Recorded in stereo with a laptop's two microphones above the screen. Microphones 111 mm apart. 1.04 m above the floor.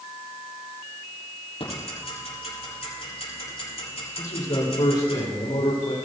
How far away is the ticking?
About 7 m.